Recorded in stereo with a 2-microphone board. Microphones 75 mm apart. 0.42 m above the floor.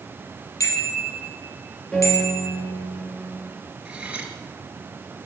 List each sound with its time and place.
0.6 s a bicycle bell: 45° left (ahead or behind), 10 m; by 2.5 s 40° left (ahead or behind), 10 m
1.9 s a piano: 10° left (ahead or behind), 5.5 m
3.9 s cutlery clinking: 15° right (ahead or behind), 5 m